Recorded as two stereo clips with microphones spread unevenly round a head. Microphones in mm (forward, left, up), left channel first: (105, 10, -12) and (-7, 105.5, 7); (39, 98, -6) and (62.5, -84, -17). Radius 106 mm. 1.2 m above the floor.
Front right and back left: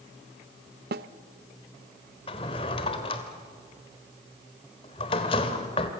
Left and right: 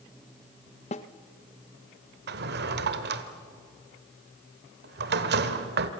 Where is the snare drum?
155° left, 0.7 m.